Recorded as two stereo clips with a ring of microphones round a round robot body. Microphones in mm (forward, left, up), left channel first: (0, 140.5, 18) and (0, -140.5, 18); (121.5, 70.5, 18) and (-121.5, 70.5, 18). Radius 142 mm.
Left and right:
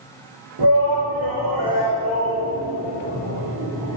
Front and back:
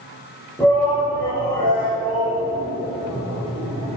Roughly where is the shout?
Right.